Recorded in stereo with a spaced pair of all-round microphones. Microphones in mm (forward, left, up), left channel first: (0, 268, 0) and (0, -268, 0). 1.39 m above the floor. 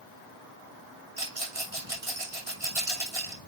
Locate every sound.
1.2 s a rattle: 75° right (ahead or behind), 2.5 m